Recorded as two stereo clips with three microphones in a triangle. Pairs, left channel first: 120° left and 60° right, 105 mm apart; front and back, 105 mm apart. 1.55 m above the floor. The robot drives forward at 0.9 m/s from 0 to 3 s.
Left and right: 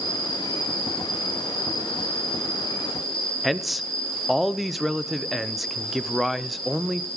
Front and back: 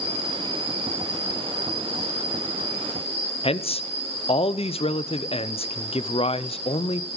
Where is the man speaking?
30° left, 0.5 m.